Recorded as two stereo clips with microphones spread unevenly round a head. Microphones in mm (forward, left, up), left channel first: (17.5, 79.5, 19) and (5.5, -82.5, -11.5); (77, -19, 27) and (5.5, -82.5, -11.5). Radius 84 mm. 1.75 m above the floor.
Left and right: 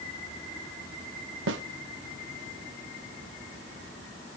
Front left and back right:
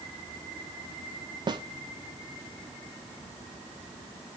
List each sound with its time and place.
1.5 s a snare drum: 90° right, 0.9 m